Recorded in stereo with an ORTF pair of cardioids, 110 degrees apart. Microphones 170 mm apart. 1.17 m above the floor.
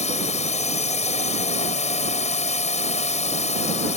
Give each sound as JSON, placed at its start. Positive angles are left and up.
{"t": 0.0, "sound": "a drone", "azimuth_deg": 45}